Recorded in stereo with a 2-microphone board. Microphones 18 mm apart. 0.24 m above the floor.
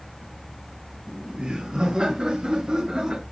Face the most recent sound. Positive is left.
turn(degrees=-50)  # may be behind; listen again after turning